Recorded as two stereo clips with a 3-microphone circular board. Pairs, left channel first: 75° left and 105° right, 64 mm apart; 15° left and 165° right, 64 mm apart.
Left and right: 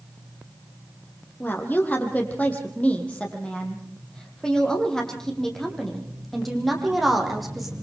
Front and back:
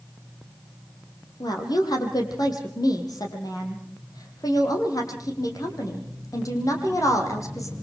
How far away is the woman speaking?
About 5 m.